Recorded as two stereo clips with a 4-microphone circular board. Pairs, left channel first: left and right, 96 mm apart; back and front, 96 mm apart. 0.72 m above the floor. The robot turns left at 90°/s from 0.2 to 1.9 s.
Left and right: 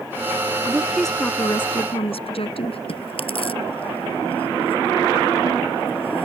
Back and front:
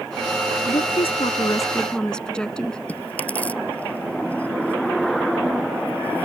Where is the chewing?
105° left.